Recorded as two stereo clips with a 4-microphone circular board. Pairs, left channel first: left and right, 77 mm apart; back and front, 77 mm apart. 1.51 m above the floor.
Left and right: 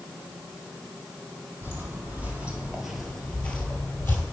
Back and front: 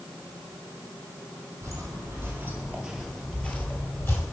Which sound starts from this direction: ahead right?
Footsteps, at 1.6 s.